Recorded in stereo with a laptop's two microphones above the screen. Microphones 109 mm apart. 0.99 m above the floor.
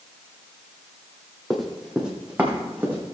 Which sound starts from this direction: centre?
Running footsteps, at 1.5 s.